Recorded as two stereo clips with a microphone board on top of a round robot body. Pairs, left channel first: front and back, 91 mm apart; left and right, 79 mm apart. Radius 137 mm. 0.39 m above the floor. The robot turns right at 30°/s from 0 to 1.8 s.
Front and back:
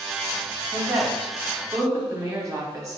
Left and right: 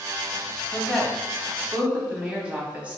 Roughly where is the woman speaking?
Behind.